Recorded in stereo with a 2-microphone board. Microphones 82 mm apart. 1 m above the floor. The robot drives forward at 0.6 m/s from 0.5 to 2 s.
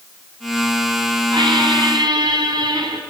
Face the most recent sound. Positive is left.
turn(degrees=-65)  # may be behind; listen again after turning